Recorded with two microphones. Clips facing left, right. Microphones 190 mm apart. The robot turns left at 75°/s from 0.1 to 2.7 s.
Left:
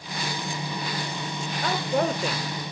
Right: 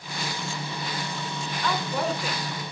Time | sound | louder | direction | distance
1.6 | a woman speaking | left 3 dB | 115° left | 1.1 m